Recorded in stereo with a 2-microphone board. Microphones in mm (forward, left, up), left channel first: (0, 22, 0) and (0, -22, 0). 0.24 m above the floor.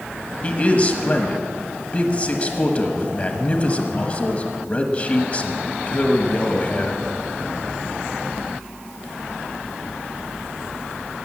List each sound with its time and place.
0.4 s a man speaking: 30° left (ahead or behind), 1.1 m